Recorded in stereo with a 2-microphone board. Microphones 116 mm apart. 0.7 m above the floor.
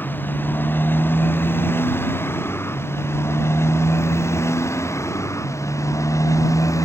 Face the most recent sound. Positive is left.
turn(degrees=25)  # may be behind; listen again after turning